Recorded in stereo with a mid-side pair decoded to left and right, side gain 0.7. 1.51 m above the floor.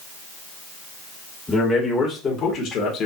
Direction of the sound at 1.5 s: 15° left.